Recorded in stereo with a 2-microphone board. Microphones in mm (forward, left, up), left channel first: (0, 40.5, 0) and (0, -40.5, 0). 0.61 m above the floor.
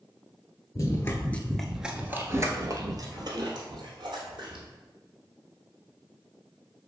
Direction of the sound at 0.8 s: 40° left (ahead or behind).